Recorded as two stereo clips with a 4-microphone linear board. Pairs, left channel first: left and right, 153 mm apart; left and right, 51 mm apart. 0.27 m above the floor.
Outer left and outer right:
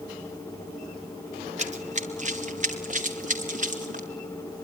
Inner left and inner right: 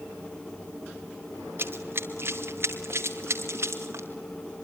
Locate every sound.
1.6 s running footsteps: 45° right (ahead or behind), 1.5 m; by 4.1 s 55° right (ahead or behind), 4 m